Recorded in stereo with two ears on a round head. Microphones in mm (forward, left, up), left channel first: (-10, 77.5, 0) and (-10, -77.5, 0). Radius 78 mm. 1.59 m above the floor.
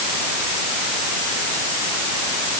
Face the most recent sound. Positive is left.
No sound to turn to.